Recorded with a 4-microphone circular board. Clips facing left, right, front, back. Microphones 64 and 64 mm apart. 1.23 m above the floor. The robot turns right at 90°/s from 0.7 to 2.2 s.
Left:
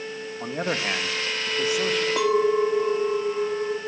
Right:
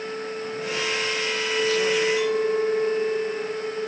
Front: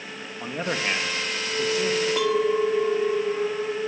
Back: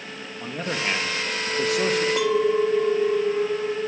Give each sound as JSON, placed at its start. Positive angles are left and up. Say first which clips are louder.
{"t": 0.4, "sound": "a man speaking", "louder": "left 4 dB, even", "azimuth_deg": 70, "distance_m": 1.9}
{"t": 2.2, "sound": "a clink", "louder": "left 2 dB, back 1 dB", "azimuth_deg": 90, "distance_m": 1.8}